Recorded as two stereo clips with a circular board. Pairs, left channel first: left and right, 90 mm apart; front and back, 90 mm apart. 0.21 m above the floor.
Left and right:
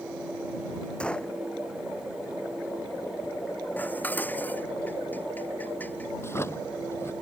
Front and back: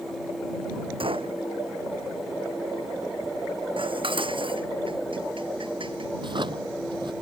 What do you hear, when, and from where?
1.0 s a gunshot: 170° left
3.8 s dishes clattering: 160° left
6.2 s a drawer: 150° left